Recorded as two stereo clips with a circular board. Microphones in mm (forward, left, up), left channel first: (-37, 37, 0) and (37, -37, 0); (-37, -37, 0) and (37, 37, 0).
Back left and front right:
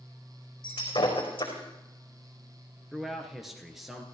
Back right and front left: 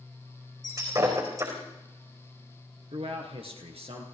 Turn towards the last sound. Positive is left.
turn(degrees=45)